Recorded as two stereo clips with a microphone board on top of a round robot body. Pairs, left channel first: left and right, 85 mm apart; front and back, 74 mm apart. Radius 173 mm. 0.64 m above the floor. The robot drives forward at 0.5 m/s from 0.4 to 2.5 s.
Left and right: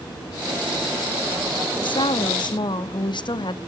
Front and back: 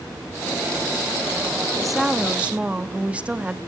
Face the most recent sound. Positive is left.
turn(degrees=105)